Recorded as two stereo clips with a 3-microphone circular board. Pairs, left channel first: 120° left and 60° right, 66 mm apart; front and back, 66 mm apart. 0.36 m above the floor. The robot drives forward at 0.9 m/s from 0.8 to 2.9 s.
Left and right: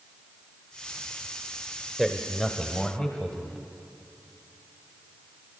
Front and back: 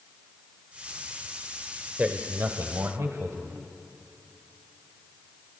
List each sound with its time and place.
2.0 s a man speaking: 145° right, 1.0 m; by 3.6 s 165° right, 1.5 m